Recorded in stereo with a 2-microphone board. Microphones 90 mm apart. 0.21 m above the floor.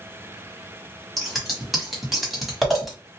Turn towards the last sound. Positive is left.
turn(degrees=0)  # may be behind; listen again after turning